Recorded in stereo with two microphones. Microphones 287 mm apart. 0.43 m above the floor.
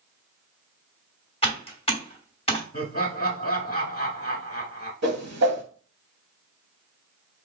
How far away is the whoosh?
About 0.8 m.